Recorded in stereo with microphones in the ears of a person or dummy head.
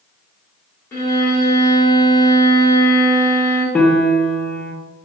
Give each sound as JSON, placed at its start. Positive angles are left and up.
{"t": 0.9, "sound": "a violin", "side_deg": 20, "distance_m": 1.4}
{"t": 3.8, "sound": "a piano", "side_deg": 10, "distance_m": 0.6}